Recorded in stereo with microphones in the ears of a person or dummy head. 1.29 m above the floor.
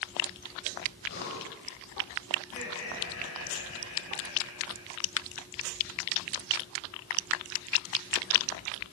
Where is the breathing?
60° left (ahead or behind), 9 m.